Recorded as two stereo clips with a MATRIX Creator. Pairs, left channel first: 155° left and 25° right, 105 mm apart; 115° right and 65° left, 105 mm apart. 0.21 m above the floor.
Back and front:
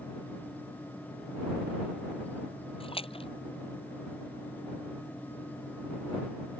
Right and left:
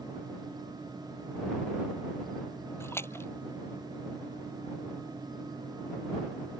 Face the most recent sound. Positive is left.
turn(degrees=180)